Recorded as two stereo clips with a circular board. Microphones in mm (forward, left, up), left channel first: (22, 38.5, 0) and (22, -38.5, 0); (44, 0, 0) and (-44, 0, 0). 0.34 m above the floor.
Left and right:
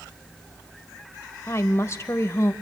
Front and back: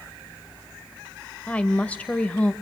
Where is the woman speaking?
65° left, 1.0 m.